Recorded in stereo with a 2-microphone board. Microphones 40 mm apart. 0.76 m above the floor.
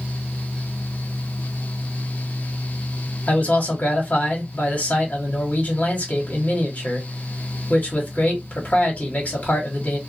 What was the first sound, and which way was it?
A man speaking, 40° left (ahead or behind).